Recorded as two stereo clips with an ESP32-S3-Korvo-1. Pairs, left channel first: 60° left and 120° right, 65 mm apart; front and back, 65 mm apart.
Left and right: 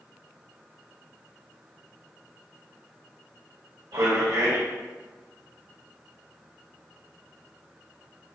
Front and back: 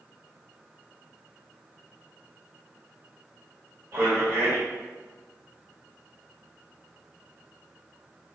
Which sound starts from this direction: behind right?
A man speaking, at 3.9 s.